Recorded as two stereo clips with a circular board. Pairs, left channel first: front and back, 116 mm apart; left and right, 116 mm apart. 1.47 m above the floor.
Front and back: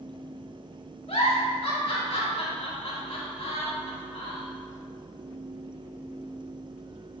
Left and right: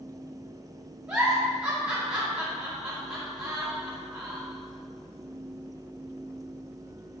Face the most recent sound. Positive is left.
turn(degrees=-10)